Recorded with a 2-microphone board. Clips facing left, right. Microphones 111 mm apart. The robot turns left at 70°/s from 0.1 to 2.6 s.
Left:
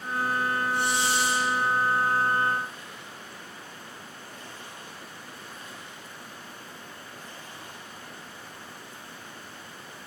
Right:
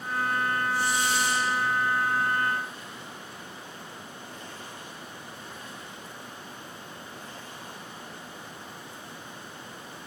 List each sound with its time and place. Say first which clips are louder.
0.7 s a hiss: left 1 dB; 125° left, 7.5 m; by 1.5 s 70° left, 7.5 m